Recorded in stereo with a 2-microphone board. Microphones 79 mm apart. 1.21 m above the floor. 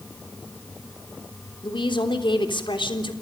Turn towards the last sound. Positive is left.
turn(degrees=75)  # may be behind; listen again after turning